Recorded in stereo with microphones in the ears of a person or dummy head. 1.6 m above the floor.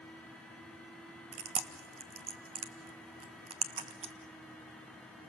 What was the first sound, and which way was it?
Chewing, 30° right (ahead or behind).